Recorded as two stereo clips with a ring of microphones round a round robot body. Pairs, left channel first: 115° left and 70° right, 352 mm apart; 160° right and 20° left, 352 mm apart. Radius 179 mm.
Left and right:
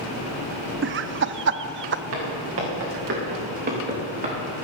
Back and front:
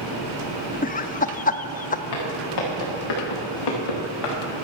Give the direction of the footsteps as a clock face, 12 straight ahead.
4 o'clock.